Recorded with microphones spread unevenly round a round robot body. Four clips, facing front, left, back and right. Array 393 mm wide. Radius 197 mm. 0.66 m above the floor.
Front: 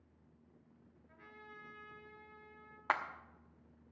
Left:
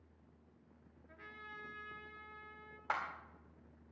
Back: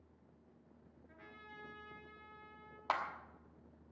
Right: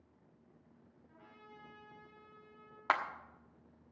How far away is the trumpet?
About 6.5 m.